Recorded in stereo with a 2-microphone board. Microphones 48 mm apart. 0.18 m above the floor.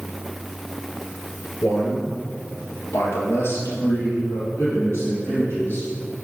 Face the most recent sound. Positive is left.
turn(degrees=55)  # may be behind; listen again after turning